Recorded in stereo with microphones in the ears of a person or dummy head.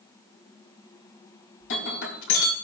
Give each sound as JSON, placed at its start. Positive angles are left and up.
{"t": 1.6, "sound": "breaking glass", "side_deg": 60, "distance_m": 4.0}